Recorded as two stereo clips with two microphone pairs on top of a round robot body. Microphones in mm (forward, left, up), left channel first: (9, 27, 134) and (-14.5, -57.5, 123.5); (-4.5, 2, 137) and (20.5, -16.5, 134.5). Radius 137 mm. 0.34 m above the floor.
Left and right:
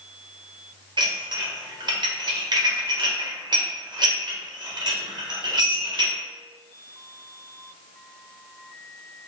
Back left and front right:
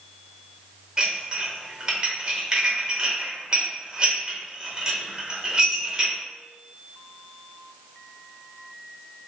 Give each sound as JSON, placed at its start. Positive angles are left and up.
{"t": 1.0, "sound": "dishes clattering", "azimuth_deg": -100, "distance_m": 1.1}